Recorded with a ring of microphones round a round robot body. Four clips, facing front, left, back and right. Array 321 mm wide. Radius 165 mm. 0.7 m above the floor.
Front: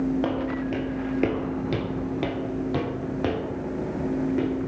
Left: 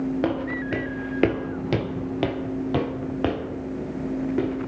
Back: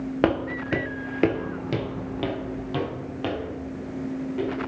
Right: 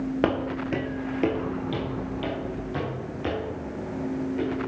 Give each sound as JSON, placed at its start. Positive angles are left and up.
{"t": 0.2, "sound": "footsteps", "azimuth_deg": -160, "distance_m": 0.8}